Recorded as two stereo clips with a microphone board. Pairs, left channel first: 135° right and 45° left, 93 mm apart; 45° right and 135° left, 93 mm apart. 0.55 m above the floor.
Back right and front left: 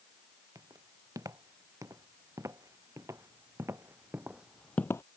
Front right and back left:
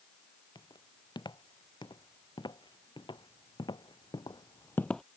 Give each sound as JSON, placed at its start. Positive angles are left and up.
{"t": 0.6, "sound": "footsteps", "azimuth_deg": -10}